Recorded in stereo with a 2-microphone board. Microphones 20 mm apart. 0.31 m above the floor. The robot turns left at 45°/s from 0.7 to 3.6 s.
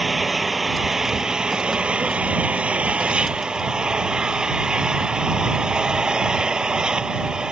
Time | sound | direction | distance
0.0 | an engine running | 5° right | ?